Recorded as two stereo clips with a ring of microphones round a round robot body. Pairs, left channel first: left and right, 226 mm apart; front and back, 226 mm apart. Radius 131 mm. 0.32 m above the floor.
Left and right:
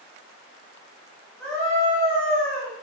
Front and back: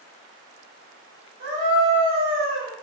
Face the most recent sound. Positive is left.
turn(degrees=175)